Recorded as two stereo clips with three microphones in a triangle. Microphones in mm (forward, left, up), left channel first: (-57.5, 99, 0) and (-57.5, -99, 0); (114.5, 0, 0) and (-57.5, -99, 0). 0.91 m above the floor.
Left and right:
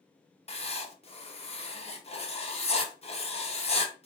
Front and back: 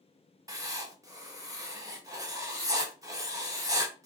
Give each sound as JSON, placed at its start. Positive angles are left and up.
{"t": 0.5, "sound": "writing", "azimuth_deg": 145, "distance_m": 0.6}